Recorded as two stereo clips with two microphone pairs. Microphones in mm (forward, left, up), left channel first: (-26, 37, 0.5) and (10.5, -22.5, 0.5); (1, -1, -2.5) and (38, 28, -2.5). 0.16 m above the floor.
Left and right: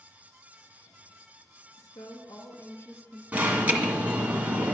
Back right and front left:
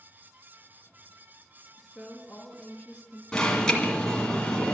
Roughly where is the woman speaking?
Behind left.